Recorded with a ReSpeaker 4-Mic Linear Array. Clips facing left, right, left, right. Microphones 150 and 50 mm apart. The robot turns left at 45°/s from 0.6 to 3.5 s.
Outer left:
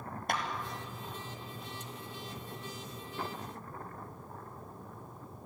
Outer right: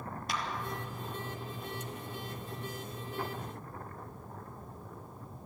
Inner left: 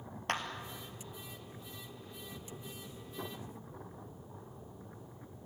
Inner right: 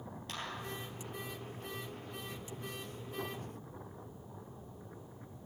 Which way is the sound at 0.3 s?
55° left (ahead or behind).